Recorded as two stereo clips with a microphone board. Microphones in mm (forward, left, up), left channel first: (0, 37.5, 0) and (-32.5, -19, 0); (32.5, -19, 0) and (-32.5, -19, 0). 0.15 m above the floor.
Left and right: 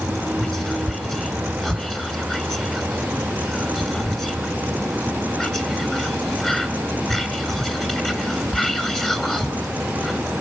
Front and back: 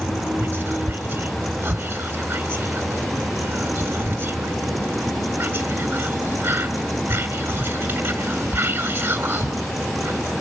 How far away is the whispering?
About 2.0 m.